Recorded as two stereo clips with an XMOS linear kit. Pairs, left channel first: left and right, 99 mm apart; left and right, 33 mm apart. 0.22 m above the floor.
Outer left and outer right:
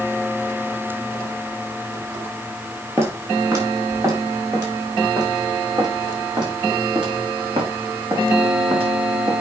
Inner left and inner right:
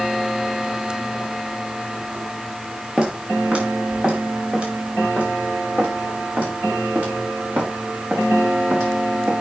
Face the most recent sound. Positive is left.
turn(degrees=-65)  # may be behind; listen again after turning